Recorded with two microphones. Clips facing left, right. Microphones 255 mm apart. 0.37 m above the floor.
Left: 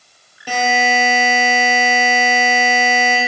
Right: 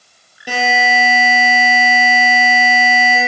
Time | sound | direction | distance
0.5 | a buzzer | 15° right (ahead or behind) | 2 m